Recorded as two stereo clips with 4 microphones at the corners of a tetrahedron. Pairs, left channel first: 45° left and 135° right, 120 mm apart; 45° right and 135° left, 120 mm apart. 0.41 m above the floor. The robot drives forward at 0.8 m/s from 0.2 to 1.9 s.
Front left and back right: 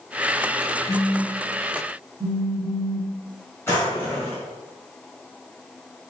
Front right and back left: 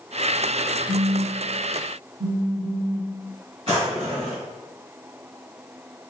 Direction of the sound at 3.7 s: 115° left.